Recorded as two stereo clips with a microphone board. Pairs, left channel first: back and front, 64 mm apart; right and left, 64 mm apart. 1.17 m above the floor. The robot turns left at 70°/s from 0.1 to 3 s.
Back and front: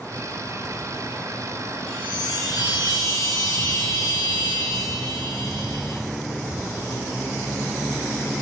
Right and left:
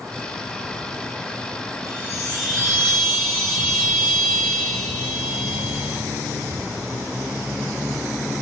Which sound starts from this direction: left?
A chime, at 1.9 s.